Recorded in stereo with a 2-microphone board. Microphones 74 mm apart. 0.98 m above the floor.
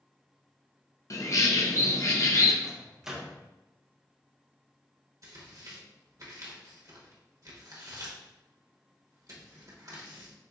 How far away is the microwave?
About 0.8 m.